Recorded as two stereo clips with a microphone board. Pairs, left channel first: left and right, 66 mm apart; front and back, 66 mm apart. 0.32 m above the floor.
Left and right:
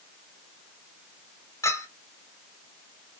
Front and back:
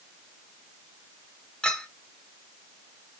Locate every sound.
1.6 s a clink: 75° left, 1.3 m